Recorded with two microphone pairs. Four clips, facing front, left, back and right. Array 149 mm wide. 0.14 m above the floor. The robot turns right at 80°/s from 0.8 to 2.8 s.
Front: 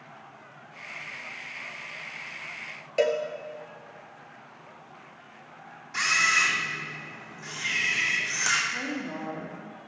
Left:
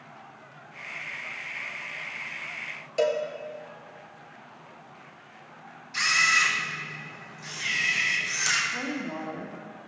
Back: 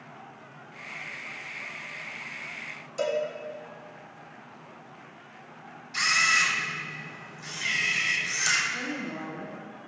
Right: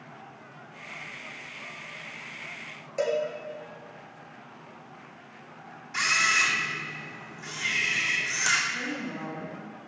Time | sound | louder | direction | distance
3.0 | a cowbell | left 2 dB, front 3 dB | 15° left | 1.4 m
5.9 | a camera shutter | left 1 dB, even | 35° right | 2.5 m
8.7 | a woman speaking | left 2 dB, front 1 dB | 60° left | 4 m